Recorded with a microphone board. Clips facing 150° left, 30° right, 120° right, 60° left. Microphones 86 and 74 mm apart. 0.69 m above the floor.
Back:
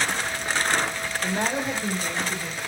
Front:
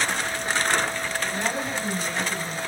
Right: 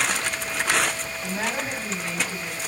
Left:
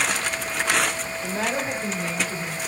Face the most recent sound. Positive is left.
turn(degrees=120)